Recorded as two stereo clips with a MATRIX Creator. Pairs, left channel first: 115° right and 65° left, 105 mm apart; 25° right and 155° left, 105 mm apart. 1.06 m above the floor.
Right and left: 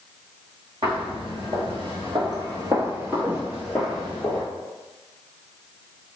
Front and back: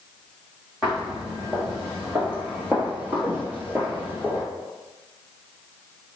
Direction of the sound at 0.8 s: 80° left.